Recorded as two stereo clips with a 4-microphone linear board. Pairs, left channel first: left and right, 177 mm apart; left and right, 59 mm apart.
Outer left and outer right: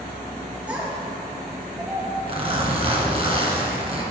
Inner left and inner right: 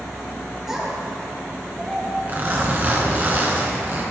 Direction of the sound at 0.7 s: 10° right (ahead or behind).